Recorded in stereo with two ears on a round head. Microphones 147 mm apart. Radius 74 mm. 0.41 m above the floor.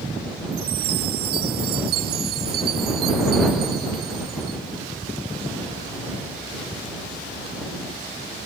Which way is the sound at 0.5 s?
70° right (ahead or behind).